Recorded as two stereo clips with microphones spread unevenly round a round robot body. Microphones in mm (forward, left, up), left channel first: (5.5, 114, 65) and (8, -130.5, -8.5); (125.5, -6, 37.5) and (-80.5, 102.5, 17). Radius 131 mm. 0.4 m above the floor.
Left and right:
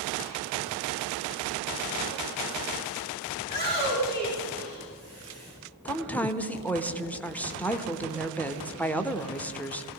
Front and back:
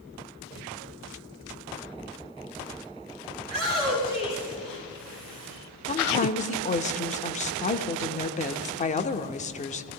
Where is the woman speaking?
25° right, 1.0 m.